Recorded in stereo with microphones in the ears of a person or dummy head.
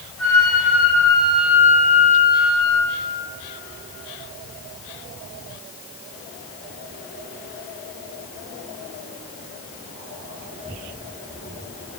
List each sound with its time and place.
0.2 s a flute: 10° left (ahead or behind), 2.5 m